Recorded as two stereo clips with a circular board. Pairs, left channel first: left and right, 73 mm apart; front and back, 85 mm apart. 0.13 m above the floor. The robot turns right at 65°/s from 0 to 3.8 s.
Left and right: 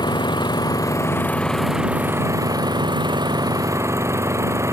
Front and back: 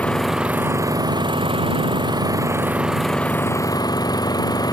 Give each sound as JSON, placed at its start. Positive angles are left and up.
{"t": 0.0, "sound": "an engine running", "azimuth_deg": 75}